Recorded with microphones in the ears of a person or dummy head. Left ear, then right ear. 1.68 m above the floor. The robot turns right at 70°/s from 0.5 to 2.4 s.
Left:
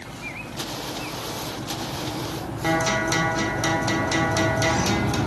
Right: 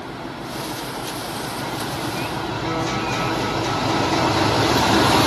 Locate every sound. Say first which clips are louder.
2.6 s a guitar: left 4 dB; 80° left, 0.9 m